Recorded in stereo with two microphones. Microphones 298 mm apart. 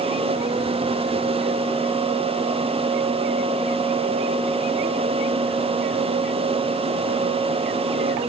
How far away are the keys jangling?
No keys jangling in this recording.